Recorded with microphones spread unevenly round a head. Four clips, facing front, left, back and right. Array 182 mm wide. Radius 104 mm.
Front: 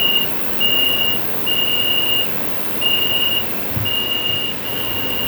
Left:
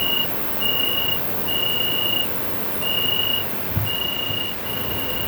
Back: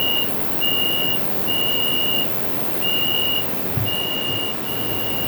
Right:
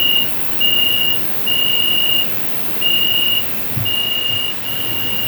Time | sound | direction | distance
0.0 | an insect | 15° left | 1.0 m